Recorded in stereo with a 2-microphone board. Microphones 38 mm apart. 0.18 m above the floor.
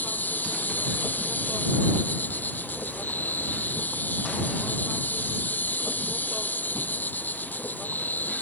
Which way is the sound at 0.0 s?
60° left (ahead or behind).